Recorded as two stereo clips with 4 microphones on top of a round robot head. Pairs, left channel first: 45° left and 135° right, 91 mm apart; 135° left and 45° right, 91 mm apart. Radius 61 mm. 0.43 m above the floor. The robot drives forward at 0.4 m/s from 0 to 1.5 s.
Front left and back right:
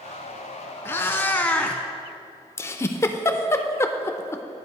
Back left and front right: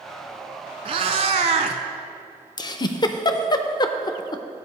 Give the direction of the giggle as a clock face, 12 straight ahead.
9 o'clock.